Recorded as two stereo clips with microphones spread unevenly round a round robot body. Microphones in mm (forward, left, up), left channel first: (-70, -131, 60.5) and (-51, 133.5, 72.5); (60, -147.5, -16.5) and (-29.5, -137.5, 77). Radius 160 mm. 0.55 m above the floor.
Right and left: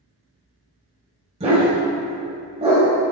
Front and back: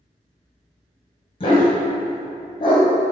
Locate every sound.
1.4 s a dog barking: 15° left, 1.3 m